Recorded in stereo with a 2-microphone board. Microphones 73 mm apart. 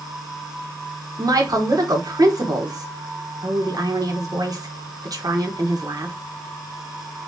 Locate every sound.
1.2 s a woman speaking: 55° right (ahead or behind), 1.3 m